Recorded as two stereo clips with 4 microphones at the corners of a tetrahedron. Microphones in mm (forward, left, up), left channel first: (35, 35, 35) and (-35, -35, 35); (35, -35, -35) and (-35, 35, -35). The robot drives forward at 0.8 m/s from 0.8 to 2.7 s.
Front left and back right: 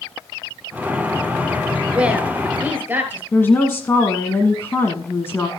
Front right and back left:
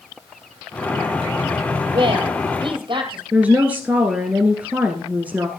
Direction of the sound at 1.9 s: 150° left.